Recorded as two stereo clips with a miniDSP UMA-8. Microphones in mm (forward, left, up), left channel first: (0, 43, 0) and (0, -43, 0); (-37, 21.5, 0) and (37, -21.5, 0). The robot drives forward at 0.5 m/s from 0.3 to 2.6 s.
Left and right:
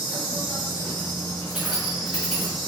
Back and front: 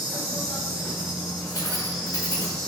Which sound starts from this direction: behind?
Keys jangling, at 1.5 s.